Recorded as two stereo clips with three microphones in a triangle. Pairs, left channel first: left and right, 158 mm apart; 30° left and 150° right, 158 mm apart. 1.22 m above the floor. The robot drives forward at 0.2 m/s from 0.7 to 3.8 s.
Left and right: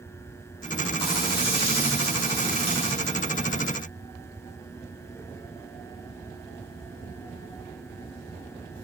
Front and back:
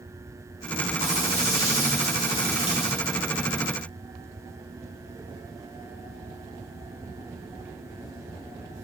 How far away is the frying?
About 1.5 m.